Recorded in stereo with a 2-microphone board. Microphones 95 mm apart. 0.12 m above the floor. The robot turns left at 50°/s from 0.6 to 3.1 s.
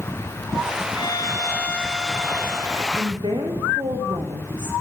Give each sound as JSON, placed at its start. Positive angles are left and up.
{"t": 0.9, "sound": "a violin", "azimuth_deg": 55, "distance_m": 4.5}
{"t": 3.0, "sound": "a woman speaking", "side_deg": -65, "distance_m": 7.0}